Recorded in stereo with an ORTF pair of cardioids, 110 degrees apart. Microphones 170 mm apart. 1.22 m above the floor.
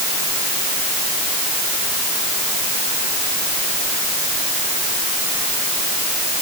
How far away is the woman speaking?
I don't hear a woman speaking.